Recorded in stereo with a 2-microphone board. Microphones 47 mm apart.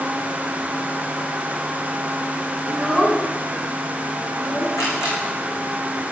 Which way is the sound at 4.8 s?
80° left.